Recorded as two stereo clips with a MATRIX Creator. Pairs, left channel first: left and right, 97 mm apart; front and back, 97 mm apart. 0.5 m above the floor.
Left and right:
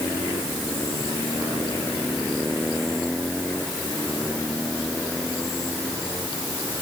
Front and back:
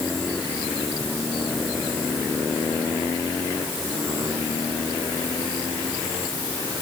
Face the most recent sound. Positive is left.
No sound to turn to.